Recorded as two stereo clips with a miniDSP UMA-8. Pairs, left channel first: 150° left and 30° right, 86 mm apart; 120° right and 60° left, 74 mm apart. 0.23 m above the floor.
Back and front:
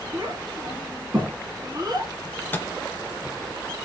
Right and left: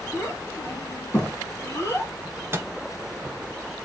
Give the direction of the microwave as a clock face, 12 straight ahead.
9 o'clock.